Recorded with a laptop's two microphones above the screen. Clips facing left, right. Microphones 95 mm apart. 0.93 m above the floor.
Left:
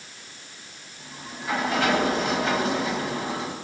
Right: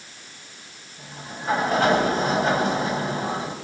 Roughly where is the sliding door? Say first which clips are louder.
Right 2 dB; right.